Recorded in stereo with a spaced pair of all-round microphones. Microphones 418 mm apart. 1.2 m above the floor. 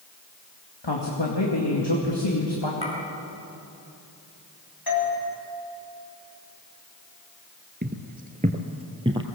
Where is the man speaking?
75° left (ahead or behind), 2 m.